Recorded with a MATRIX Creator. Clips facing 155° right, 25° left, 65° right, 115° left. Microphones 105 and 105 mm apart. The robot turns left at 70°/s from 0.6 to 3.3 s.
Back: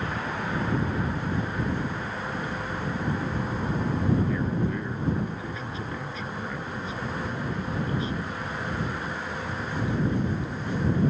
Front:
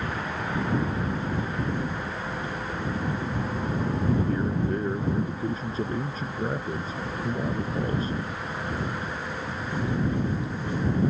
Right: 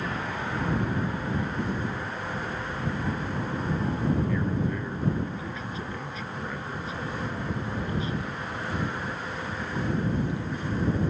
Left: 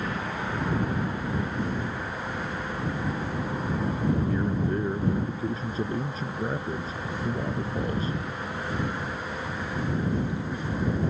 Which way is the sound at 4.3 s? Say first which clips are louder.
Front 1 dB, left 1 dB; 65° left.